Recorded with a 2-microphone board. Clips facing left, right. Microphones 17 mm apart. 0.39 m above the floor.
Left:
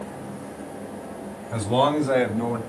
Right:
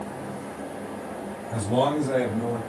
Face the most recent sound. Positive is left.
turn(degrees=45)  # may be behind; listen again after turning